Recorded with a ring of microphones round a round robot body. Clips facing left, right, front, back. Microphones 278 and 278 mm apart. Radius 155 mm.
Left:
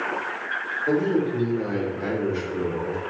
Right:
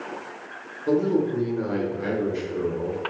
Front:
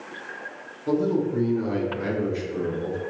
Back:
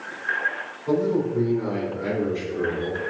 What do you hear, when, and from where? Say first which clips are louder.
0.9 s a man speaking: even, back 1 dB; 20° right, 2.5 m; by 3.0 s 15° left, 4 m